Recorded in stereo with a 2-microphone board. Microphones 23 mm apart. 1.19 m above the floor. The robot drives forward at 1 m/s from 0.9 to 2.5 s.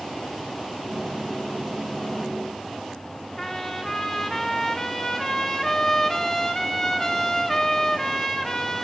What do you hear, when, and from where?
3.4 s a trumpet: 20° left (ahead or behind), 0.6 m